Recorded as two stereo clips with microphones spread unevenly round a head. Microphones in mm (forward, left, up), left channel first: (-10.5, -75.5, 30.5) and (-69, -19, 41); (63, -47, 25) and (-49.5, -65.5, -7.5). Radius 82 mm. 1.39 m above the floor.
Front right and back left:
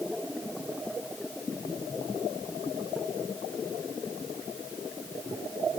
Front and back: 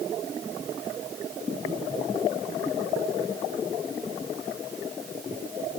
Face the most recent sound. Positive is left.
No sound to turn to.